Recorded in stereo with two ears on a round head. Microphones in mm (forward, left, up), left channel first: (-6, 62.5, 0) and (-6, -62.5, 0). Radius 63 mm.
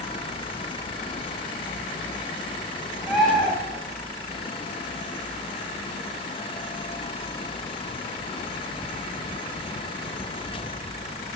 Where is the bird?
Centre (ahead or behind), 2.5 m.